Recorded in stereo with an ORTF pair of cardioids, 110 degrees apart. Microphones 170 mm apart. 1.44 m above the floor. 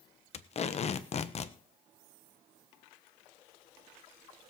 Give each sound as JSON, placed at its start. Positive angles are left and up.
{"t": 0.3, "sound": "tape being pulled", "azimuth_deg": 40, "distance_m": 1.1}